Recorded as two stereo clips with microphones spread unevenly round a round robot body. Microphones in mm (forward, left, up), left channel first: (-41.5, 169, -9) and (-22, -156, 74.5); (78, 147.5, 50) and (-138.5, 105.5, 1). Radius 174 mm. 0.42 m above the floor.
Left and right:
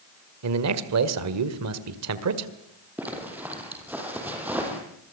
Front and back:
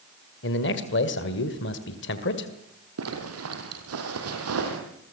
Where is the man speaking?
40° right, 2 m.